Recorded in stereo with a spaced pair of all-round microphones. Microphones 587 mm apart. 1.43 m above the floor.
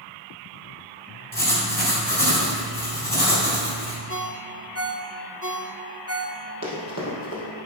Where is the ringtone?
25° right (ahead or behind), 0.7 m.